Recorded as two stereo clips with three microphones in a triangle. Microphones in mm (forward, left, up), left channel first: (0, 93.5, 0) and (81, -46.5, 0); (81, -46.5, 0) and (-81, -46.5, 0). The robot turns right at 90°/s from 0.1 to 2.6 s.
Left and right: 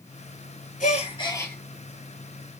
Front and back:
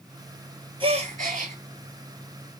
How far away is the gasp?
About 0.6 m.